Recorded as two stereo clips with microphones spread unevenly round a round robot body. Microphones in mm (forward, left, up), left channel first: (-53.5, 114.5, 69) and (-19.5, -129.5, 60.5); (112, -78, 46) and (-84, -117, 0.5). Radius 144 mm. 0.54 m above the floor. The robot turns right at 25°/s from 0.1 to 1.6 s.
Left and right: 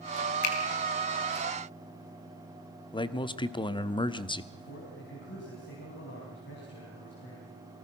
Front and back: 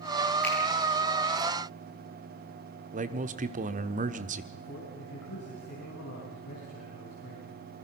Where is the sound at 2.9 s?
165° left, 1.1 m.